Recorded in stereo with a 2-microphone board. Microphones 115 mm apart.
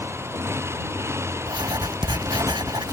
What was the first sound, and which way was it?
A motorcycle, 20° right (ahead or behind).